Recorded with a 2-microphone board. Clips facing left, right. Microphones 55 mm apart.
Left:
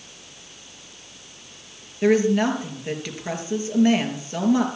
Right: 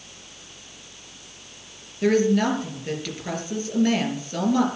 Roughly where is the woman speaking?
Centre.